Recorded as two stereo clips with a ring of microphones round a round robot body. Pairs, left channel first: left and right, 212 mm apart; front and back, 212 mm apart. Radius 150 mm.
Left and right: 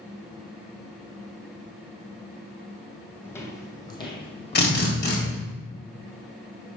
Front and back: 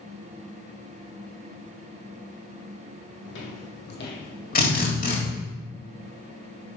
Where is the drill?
50° left, 2 m.